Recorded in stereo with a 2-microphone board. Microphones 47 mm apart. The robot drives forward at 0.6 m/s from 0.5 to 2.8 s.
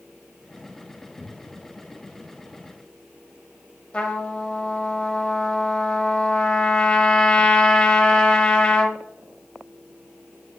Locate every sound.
1.2 s a cupboard door: 15° left (ahead or behind), 1.5 m; by 1.7 s 20° left (ahead or behind), 1.3 m
3.9 s a trumpet: 20° left (ahead or behind), 1.1 m